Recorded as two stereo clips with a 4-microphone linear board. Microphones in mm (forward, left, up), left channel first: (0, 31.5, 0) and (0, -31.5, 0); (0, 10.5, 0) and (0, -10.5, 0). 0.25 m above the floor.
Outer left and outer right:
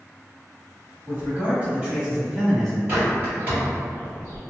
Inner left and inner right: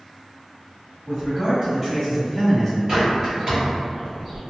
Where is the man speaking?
35° right (ahead or behind), 1.3 m; by 2.8 s 5° right (ahead or behind), 1.3 m.